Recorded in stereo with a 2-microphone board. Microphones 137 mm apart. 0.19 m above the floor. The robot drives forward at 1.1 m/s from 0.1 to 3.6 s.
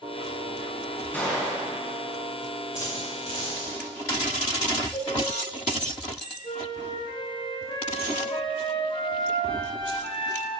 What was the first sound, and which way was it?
A gunshot, 15° left (ahead or behind).